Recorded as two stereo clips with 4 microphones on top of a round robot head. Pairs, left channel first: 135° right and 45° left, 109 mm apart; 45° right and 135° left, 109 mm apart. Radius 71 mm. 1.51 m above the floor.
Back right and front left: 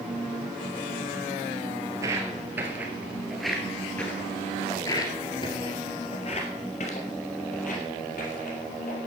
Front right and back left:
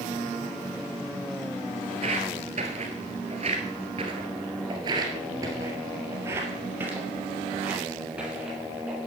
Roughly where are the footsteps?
Left.